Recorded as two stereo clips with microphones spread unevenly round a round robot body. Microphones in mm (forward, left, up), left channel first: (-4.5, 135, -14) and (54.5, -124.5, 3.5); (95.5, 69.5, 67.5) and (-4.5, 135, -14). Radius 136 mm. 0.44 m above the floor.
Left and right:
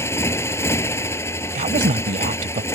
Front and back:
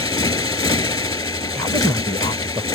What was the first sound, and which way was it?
A motorcycle, 20° left.